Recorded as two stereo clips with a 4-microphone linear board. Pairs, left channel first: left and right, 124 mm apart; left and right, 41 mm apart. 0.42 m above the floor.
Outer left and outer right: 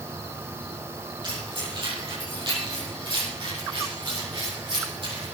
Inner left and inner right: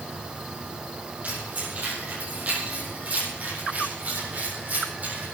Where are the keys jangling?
40° right (ahead or behind), 8.5 m.